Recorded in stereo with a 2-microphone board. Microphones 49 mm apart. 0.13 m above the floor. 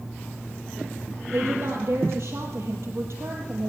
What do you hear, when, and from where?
1.3 s a woman speaking: 65° right (ahead or behind), 3.5 m